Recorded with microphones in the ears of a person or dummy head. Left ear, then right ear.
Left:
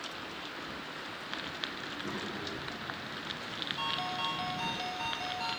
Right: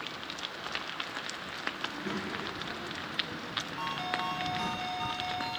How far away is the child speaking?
About 7.5 m.